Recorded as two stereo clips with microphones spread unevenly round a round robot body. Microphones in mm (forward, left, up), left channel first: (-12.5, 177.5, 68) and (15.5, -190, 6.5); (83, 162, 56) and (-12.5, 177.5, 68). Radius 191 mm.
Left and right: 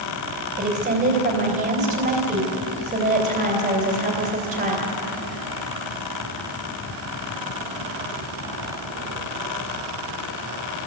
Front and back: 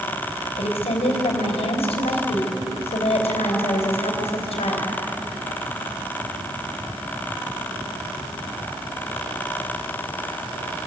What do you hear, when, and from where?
0.6 s a woman speaking: 20° right, 3.5 m